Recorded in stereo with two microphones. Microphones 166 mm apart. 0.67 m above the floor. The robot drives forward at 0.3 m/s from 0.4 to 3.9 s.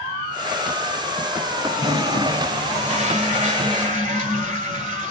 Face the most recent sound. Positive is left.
turn(degrees=-50)  # may be behind; listen again after turning